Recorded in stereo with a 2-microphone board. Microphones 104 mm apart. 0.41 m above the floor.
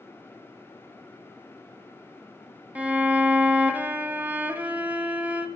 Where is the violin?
15° right (ahead or behind), 0.6 m.